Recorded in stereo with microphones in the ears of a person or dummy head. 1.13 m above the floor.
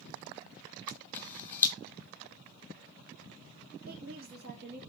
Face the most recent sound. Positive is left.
turn(degrees=-55)  # may be behind; listen again after turning